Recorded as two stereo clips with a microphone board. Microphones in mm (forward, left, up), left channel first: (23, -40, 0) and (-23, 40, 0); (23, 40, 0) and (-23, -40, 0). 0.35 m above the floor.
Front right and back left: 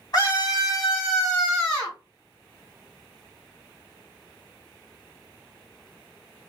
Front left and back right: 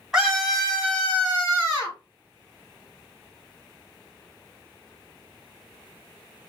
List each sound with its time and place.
0.1 s a scream: 40° right, 1.6 m; by 2.0 s 5° right, 2.5 m